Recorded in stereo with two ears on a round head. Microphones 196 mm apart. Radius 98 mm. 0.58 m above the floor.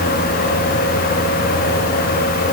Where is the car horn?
No car horn in this recording.